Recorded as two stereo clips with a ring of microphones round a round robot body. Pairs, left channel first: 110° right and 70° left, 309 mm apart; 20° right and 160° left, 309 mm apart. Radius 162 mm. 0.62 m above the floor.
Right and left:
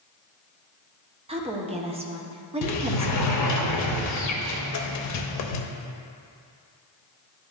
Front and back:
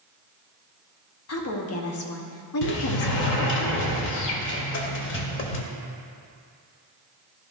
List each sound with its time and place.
1.3 s a woman speaking: straight ahead, 0.9 m
2.6 s a sliding door: 75° right, 0.6 m